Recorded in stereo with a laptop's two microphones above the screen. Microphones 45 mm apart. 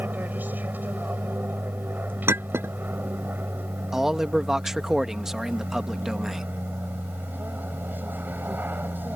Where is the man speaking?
10° right (ahead or behind).